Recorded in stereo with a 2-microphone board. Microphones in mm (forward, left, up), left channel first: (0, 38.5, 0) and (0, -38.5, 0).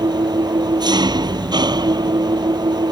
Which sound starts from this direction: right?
An engine running, at 0.0 s.